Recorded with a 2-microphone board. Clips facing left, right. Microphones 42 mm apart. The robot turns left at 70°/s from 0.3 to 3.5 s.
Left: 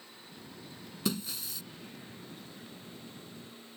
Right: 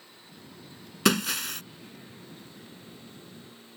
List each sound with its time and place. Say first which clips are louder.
1.1 s breaking glass: right 10 dB; 85° right; by 1.6 s 125° right